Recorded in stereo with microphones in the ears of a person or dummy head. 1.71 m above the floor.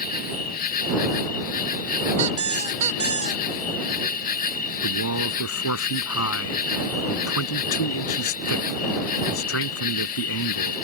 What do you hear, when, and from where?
0.0 s an insect: 50° left (ahead or behind)
2.2 s a squeak: 35° right (ahead or behind)
4.8 s a man speaking: 85° left